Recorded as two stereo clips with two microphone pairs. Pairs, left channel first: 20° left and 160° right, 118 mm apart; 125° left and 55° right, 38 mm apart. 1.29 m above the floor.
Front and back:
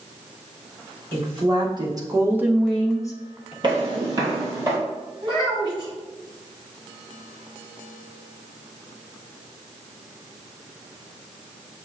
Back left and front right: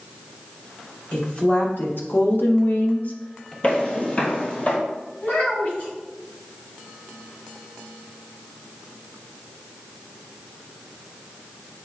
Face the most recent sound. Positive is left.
turn(degrees=150)